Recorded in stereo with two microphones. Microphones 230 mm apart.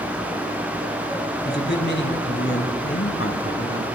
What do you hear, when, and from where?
1.4 s a man speaking: 50° left (ahead or behind), 2.5 m; by 3.9 s 75° left (ahead or behind), 3.5 m